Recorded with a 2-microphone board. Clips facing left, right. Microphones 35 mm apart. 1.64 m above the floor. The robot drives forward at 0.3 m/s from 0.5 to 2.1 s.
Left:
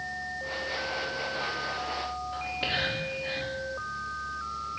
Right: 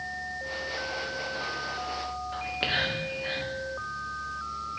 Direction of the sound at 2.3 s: 60° right (ahead or behind).